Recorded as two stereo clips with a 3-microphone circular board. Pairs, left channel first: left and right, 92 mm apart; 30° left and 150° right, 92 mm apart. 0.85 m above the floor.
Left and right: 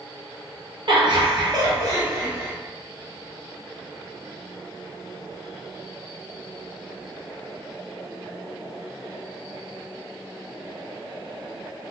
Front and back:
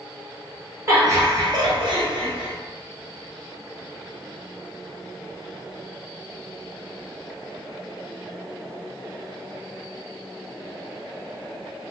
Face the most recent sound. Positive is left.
turn(degrees=-150)